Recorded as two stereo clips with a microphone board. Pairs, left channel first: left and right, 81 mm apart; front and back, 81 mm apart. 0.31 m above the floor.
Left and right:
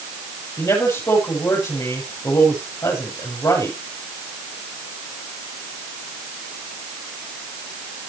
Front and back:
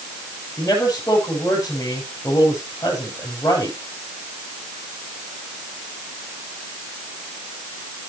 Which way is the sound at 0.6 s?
50° left.